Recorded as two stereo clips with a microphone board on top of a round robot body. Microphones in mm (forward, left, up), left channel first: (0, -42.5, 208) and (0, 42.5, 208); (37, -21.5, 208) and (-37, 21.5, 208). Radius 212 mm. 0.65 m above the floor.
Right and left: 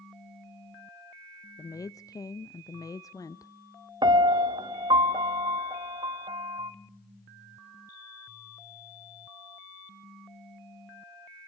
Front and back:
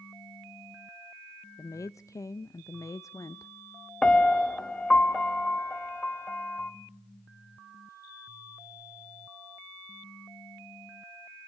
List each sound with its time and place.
1.6 s a woman speaking: 65° right, 0.8 m
4.0 s a piano: 50° left, 0.6 m